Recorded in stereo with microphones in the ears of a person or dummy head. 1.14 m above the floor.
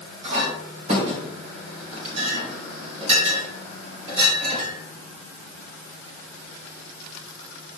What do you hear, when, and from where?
0.2 s a clink: 40° right (ahead or behind), 3.5 m